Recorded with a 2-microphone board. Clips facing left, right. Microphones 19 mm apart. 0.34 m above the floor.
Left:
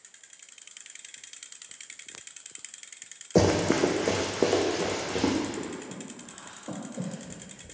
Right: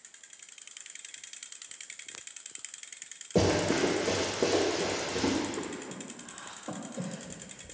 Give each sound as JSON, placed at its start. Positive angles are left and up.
{"t": 3.4, "sound": "running footsteps", "side_deg": 60, "distance_m": 0.8}
{"t": 5.6, "sound": "breathing", "side_deg": -15, "distance_m": 0.6}